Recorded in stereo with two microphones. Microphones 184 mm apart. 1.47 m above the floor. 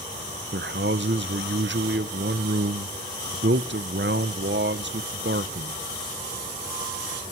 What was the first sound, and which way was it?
A man speaking, 80° right.